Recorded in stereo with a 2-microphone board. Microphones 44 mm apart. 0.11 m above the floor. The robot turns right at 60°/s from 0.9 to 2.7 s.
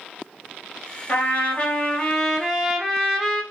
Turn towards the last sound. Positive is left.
turn(degrees=-170)